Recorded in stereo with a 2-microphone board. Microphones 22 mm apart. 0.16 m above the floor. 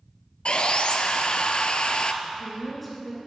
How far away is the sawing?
About 0.5 m.